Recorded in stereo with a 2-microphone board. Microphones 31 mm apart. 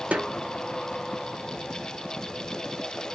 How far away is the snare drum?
About 1.0 m.